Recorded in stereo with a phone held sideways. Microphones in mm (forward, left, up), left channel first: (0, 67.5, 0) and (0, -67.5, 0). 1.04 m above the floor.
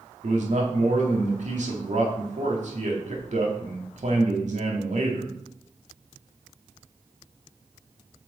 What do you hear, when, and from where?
0.2 s a man speaking: 60° right (ahead or behind), 1.8 m